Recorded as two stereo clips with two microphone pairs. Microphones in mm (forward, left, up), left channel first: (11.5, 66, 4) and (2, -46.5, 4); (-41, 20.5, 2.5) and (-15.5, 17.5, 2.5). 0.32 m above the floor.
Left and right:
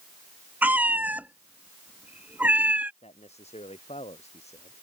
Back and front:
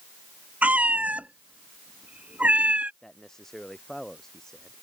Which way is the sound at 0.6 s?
20° right.